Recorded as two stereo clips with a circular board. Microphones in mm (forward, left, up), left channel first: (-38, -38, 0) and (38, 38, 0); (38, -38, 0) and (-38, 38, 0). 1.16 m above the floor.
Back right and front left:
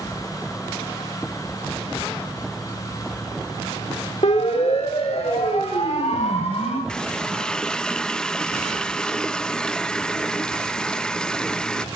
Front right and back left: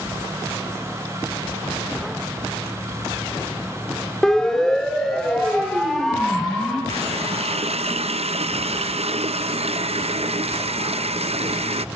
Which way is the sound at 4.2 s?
130° right.